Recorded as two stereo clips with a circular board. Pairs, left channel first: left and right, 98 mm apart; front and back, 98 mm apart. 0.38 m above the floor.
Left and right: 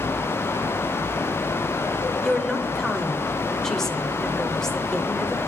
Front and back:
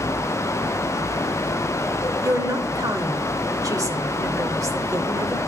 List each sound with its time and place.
2.2 s a woman speaking: 170° left, 0.9 m